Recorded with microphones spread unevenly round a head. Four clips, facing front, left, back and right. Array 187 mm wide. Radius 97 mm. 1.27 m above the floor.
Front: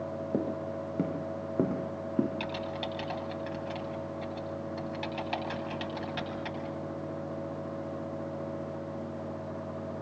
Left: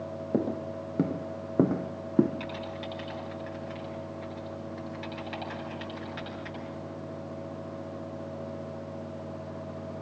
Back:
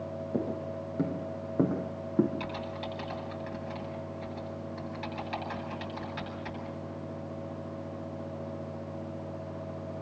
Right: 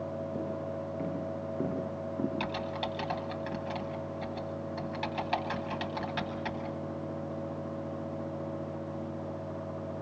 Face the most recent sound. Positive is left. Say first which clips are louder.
# right 2 dB, front 2 dB
turn(degrees=-60)